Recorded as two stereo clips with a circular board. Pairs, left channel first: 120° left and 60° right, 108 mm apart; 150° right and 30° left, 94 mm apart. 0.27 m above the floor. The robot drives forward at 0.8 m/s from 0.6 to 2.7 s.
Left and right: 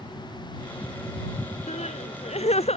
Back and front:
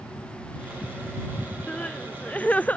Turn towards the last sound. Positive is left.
turn(degrees=135)